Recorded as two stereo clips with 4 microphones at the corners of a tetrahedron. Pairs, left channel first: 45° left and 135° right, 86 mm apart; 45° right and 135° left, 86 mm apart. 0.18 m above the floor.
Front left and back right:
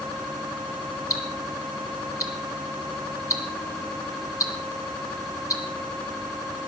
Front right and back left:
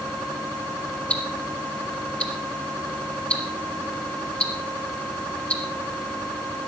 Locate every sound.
1.1 s ticking: 25° left, 2 m